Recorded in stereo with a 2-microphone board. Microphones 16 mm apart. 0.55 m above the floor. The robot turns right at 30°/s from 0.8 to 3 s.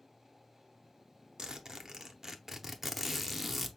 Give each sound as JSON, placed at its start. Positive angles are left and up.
{"t": 1.4, "sound": "a zipper", "azimuth_deg": -60, "distance_m": 0.6}